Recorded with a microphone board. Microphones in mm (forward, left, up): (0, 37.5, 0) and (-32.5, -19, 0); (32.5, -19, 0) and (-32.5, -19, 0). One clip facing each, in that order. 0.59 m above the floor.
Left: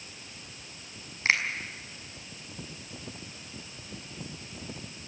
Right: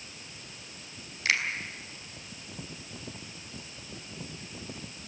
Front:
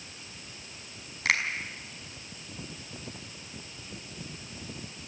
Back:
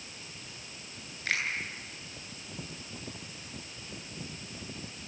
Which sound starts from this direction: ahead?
A finger snap, at 1.2 s.